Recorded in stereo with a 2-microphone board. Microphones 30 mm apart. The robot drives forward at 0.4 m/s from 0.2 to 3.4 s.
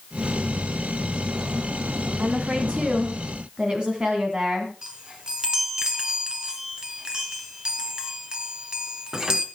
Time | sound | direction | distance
2.2 | a woman speaking | 40° right (ahead or behind) | 2 m
4.8 | a chime | 25° right (ahead or behind) | 2 m